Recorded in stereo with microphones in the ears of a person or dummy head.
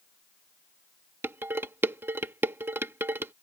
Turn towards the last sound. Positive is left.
turn(degrees=-10)  # may be behind; listen again after turning